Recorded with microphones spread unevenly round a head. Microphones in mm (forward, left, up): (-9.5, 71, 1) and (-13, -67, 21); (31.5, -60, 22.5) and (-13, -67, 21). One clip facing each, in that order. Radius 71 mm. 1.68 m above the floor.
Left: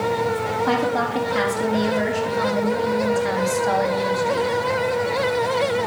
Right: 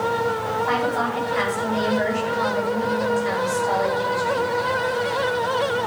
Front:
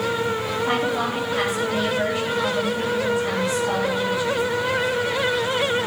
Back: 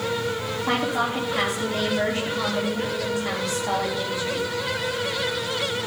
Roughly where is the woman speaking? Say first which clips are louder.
Left 3 dB, back 1 dB; left.